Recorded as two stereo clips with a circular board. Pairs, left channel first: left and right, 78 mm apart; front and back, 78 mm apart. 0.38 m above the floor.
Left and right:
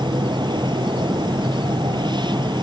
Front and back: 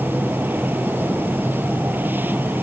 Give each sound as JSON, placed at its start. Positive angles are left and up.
{"t": 0.0, "sound": "an insect", "azimuth_deg": -115}